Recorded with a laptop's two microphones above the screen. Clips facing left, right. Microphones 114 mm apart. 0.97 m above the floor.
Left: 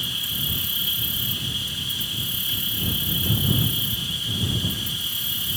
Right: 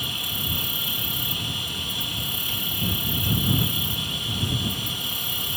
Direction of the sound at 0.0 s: 60° right (ahead or behind).